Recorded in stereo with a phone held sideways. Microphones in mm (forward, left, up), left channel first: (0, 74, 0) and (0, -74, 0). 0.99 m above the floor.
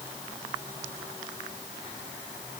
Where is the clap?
No clap in this recording.